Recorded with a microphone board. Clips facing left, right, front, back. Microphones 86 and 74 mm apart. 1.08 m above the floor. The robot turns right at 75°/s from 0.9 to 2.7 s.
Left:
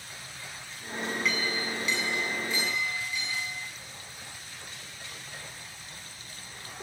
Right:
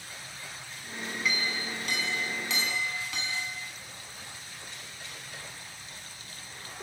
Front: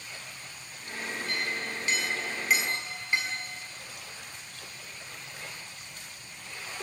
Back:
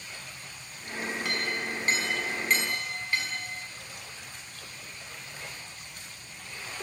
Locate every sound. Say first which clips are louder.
1.2 s a clink: right 2 dB, even; straight behind, 6 m; by 3.5 s 70° right, 6 m